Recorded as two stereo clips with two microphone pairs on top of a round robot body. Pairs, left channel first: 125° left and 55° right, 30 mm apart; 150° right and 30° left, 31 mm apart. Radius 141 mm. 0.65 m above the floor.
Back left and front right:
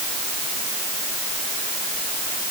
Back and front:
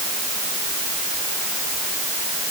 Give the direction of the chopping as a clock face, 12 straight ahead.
I don't hear chopping.